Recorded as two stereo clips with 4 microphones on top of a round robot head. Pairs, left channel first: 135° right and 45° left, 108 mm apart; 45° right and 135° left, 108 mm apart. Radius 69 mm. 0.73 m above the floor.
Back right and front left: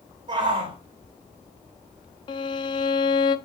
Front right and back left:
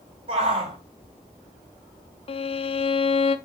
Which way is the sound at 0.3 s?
95° left.